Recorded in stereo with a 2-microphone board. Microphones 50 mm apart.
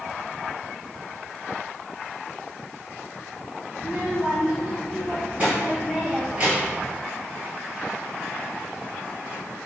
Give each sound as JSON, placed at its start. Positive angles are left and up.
{"t": 3.8, "sound": "a child speaking", "side_deg": -30, "distance_m": 0.6}